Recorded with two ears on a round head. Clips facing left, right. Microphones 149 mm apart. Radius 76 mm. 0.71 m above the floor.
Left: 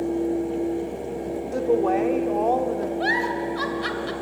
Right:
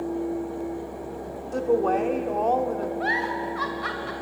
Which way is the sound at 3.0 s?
40° left (ahead or behind).